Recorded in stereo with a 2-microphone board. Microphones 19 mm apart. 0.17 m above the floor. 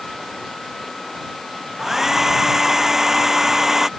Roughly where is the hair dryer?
Centre.